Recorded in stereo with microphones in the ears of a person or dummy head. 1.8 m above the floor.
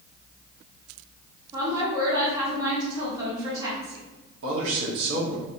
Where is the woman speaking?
20° right (ahead or behind), 1.1 m.